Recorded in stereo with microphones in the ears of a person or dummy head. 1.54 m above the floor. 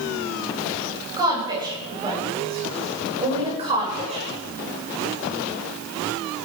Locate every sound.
1.2 s a woman speaking: 20° right (ahead or behind), 8 m; by 4.3 s 30° right (ahead or behind), 6 m